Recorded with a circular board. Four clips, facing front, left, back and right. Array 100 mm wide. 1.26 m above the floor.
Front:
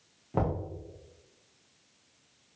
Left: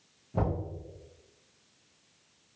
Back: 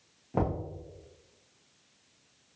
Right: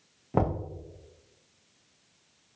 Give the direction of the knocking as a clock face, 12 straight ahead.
3 o'clock.